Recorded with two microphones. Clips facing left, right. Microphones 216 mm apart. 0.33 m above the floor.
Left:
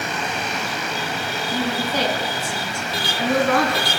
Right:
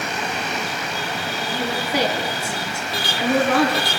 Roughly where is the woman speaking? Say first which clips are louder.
Left 1 dB; centre.